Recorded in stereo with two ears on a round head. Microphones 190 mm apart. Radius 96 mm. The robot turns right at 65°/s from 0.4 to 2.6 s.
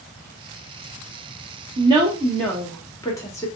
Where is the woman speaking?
35° right, 1.2 m; by 3.5 s 20° left, 1.2 m.